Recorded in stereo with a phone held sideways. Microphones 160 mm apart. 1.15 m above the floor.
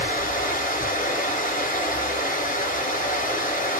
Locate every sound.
0.0 s running water: 50° left (ahead or behind), 1.3 m